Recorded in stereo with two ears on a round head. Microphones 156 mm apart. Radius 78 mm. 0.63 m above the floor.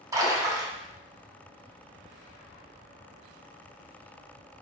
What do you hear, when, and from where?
0.1 s a splash: 20° right (ahead or behind), 0.6 m